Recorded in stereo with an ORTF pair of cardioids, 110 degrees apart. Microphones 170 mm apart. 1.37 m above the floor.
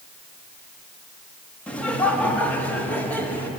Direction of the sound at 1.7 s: 10° left.